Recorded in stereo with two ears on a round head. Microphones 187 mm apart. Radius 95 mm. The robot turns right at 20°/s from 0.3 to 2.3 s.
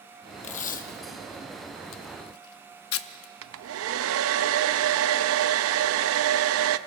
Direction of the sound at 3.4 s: 75° right (ahead or behind).